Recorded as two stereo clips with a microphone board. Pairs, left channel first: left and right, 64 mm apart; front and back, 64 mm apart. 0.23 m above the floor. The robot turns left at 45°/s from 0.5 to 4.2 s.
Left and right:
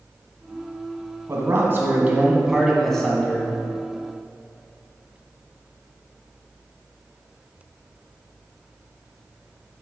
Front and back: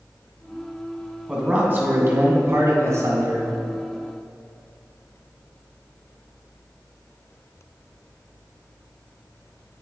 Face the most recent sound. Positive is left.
turn(degrees=120)